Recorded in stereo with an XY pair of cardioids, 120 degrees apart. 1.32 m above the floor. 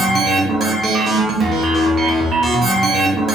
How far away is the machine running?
About 0.9 m.